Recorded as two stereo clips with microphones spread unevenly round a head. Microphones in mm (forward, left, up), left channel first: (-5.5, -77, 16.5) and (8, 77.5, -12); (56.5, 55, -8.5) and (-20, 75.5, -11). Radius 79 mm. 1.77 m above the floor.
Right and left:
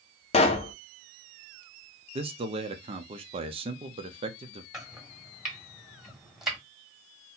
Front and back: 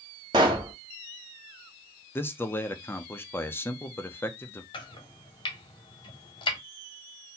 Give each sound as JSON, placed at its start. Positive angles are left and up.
{"t": 0.3, "sound": "a pop", "azimuth_deg": -145, "distance_m": 0.5}
{"t": 2.1, "sound": "a man speaking", "azimuth_deg": 30, "distance_m": 0.6}
{"t": 4.7, "sound": "chopping", "azimuth_deg": -5, "distance_m": 1.1}